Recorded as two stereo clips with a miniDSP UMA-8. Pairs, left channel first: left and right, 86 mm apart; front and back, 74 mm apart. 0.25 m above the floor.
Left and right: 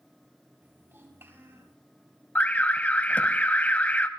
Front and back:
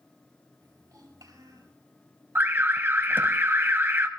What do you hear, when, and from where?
0.6 s a child speaking: 150° right, 3.5 m
2.4 s an alarm: 150° left, 1.0 m